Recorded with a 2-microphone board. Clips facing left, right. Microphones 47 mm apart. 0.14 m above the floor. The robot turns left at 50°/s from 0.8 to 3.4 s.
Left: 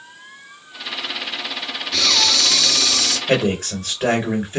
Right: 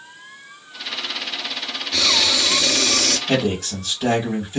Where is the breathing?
Straight ahead, 0.6 m; by 3.2 s 60° right, 0.6 m.